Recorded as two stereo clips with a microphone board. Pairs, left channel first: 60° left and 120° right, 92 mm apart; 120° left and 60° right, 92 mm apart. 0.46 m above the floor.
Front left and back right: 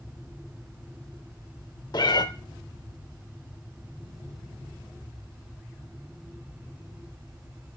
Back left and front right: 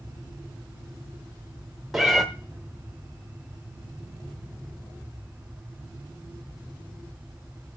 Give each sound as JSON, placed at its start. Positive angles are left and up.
{"t": 1.9, "sound": "a cat meowing", "azimuth_deg": 30, "distance_m": 0.9}